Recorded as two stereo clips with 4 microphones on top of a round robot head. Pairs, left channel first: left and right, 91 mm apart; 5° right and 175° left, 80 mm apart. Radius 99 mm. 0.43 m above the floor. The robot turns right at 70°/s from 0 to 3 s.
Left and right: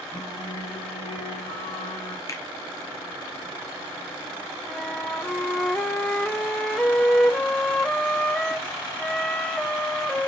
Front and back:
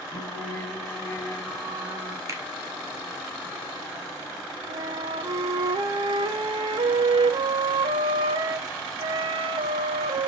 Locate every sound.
0.1 s singing: 5° right, 2.5 m; by 2.2 s 140° left, 2.5 m
2.3 s a finger snap: 135° left, 1.8 m; by 2.4 s 145° left, 1.8 m
4.7 s a flute: 170° left, 0.6 m